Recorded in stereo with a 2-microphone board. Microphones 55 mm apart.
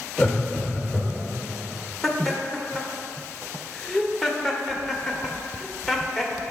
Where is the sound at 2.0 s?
5° left (ahead or behind), 1.0 m.